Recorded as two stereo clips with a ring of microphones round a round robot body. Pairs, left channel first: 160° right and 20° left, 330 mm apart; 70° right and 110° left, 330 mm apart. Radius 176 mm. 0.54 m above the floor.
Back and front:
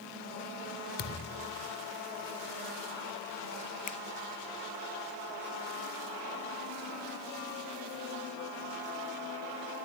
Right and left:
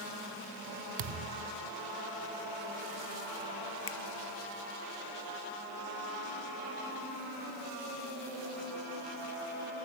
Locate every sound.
1.0 s a thud: 140° left
3.9 s a finger snap: 100° right